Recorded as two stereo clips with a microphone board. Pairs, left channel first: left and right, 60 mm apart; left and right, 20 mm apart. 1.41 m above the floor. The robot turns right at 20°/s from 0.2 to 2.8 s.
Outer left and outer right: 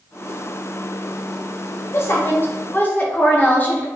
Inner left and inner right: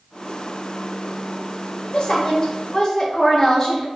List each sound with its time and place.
1.9 s a woman speaking: 45° left (ahead or behind), 0.7 m; by 3.9 s 30° left (ahead or behind), 0.7 m